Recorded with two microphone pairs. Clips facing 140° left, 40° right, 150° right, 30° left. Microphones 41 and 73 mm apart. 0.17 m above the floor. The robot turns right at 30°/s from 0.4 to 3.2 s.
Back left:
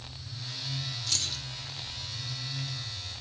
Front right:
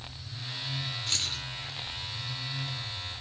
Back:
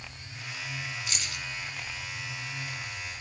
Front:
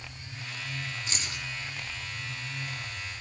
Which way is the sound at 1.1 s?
Straight ahead.